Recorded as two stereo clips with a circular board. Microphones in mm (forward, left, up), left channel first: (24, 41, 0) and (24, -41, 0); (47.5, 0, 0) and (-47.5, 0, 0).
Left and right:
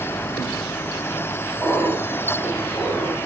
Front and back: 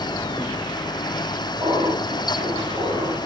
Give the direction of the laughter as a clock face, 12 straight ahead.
7 o'clock.